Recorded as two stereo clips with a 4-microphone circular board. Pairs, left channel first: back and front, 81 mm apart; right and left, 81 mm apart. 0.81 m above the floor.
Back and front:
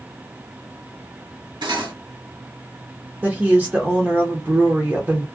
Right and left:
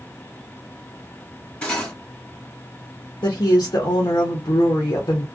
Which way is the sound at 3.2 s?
70° right.